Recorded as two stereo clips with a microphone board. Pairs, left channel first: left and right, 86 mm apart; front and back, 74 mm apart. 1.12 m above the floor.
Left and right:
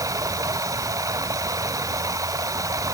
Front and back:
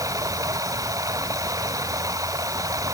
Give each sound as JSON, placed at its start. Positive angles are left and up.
{"t": 0.0, "sound": "running water", "azimuth_deg": -140}